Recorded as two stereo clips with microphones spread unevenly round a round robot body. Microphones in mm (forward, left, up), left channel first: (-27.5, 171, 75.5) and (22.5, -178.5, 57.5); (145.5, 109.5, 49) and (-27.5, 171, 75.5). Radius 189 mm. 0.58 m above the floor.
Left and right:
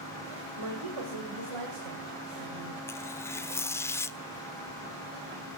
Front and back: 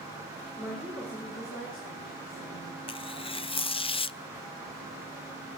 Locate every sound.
0.6 s a woman speaking: 110° right, 2.5 m; by 2.8 s 65° right, 4.5 m
2.9 s tearing paper: 15° left, 0.5 m